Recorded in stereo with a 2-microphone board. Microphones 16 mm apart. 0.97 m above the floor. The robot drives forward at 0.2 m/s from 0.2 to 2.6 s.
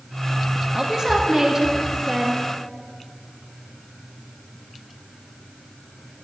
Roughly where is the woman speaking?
Right.